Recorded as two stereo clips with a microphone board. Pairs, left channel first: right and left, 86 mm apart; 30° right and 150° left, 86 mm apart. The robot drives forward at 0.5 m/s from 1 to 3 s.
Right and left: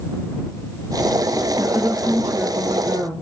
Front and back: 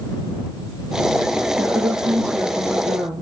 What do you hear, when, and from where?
1.6 s a woman speaking: 170° right, 6.5 m; by 3.2 s 175° right, 7 m